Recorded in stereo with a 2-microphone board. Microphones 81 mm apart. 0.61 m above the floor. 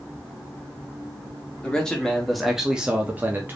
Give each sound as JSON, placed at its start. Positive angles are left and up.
{"t": 1.6, "sound": "a man speaking", "side_deg": 10, "distance_m": 1.3}